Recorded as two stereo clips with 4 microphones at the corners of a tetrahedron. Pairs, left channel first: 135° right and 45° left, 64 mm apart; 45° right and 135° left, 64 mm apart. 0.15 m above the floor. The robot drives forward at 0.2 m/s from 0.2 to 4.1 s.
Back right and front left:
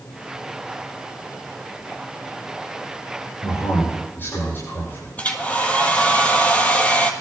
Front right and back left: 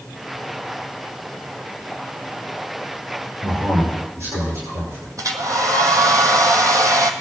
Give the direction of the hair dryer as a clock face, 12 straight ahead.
7 o'clock.